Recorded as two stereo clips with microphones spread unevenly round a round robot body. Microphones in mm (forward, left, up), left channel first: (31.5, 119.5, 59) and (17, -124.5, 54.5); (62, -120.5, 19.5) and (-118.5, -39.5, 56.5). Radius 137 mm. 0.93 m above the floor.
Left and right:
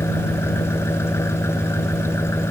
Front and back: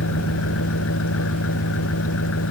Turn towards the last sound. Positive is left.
turn(degrees=5)